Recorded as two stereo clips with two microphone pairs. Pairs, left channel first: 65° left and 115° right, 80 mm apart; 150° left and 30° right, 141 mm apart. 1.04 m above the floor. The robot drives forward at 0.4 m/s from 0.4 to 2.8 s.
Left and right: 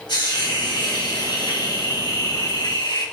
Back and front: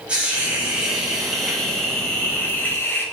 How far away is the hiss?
About 2.5 m.